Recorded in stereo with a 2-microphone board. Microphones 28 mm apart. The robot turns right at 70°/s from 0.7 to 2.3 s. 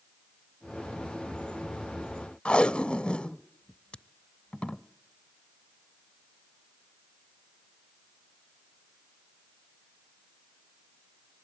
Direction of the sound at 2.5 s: 40° left (ahead or behind).